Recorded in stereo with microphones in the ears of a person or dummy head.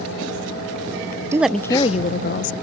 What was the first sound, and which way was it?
A woman speaking, 15° right (ahead or behind).